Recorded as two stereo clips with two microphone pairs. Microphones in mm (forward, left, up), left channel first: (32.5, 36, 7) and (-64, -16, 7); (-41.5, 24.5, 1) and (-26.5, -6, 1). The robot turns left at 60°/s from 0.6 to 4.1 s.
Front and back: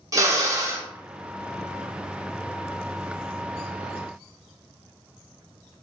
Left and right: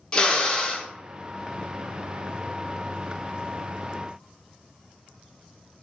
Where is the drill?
165° left, 0.8 m; by 0.9 s 145° left, 0.8 m.